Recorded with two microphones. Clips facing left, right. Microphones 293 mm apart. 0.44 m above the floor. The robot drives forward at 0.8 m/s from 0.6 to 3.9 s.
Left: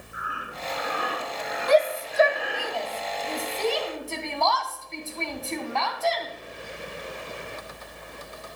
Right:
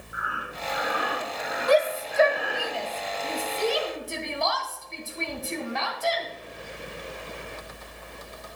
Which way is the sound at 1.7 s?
35° right (ahead or behind).